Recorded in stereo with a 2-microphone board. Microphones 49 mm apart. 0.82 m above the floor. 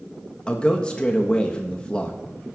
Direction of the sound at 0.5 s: 20° left (ahead or behind).